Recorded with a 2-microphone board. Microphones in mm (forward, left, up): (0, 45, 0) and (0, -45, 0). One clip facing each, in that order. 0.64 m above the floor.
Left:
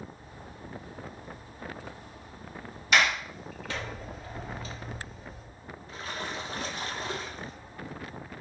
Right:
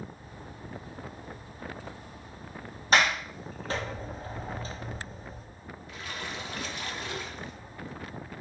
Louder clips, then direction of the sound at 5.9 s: Left 3 dB; 35° left (ahead or behind).